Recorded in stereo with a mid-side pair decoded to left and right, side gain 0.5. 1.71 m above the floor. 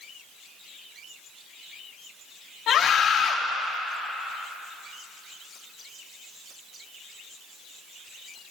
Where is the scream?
65° left, 3.5 m.